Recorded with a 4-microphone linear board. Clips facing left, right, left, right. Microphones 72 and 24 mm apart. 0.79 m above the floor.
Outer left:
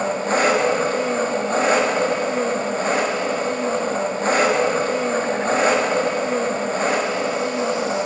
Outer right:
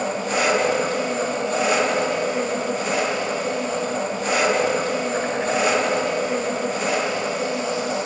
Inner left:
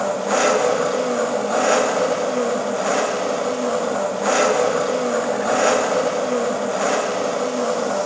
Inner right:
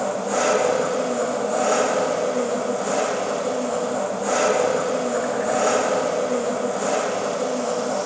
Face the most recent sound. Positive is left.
turn(degrees=40)  # may be behind; listen again after turning